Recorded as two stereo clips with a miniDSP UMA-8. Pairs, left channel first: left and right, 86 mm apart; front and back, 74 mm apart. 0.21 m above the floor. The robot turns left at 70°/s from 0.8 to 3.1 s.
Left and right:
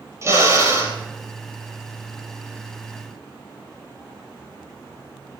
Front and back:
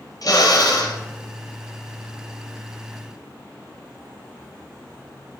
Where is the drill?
35° right, 3 m; by 1.0 s 50° right, 3 m.